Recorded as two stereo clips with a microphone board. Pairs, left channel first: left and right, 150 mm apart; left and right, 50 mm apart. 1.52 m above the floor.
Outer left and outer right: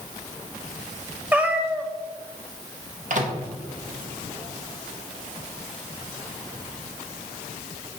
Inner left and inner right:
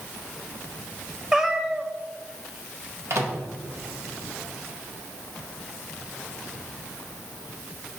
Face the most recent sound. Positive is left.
turn(degrees=-60)  # may be behind; listen again after turning